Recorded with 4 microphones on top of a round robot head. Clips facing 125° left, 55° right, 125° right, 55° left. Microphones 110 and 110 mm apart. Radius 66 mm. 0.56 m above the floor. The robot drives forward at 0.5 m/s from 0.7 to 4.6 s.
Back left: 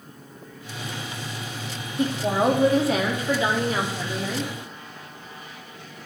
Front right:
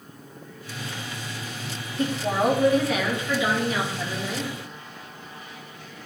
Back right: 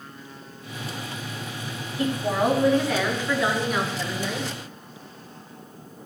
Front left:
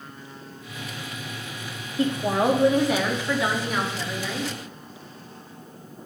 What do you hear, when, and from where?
2.0 s a woman speaking: 65° left, 1.1 m; by 4.5 s 155° left, 1.5 m